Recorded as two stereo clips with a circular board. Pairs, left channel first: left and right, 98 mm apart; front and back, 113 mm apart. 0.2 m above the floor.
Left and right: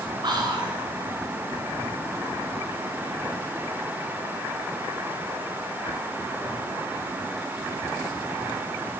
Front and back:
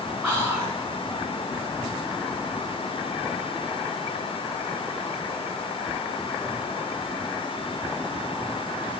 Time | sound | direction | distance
0.2 | whispering | 85° right | 1.8 m